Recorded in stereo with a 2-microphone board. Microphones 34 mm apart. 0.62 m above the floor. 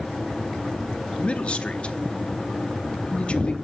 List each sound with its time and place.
1.2 s a man speaking: 40° left (ahead or behind), 0.7 m